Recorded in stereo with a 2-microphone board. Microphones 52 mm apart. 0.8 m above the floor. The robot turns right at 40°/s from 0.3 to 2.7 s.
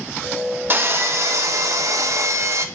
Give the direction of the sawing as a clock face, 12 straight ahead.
5 o'clock.